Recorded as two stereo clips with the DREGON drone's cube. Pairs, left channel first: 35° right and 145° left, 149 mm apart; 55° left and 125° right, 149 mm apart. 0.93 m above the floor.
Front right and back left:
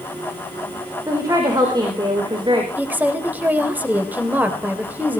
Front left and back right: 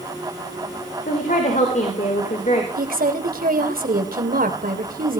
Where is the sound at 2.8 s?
135° right, 3 m.